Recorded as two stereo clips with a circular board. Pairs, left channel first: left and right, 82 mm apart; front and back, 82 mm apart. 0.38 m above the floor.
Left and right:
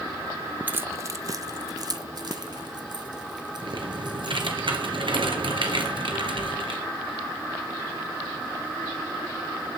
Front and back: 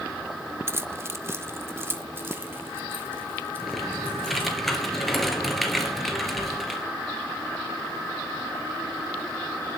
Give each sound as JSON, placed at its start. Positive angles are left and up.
{"t": 0.7, "sound": "keys jangling", "azimuth_deg": -145, "distance_m": 0.6}
{"t": 3.6, "sound": "typing on a keyboard", "azimuth_deg": -85, "distance_m": 2.5}